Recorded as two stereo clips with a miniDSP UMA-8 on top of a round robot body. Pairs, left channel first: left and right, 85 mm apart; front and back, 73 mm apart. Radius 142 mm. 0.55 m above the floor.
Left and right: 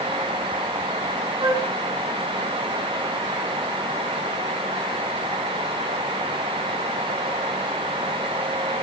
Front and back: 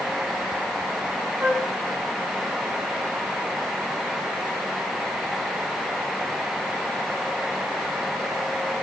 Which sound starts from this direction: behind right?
A flute, at 1.4 s.